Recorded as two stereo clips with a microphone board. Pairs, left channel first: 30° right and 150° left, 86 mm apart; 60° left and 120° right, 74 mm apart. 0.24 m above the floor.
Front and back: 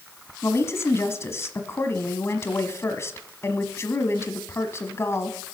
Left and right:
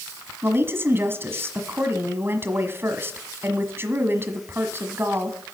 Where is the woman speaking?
75° right, 1.4 m.